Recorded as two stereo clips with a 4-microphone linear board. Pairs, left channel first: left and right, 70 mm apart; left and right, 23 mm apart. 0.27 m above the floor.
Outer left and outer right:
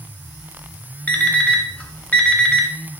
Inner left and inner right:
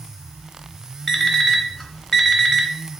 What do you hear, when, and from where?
1.1 s an alarm clock: 20° left (ahead or behind), 0.7 m